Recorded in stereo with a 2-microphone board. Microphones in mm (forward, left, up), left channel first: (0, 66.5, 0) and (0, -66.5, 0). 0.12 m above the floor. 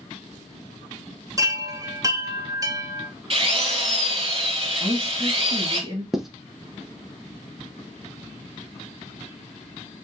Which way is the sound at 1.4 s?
25° right (ahead or behind).